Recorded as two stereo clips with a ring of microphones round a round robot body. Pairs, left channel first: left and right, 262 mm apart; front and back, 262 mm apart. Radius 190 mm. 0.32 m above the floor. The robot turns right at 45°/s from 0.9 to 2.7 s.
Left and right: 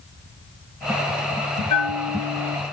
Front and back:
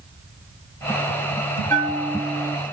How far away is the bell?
About 2.5 m.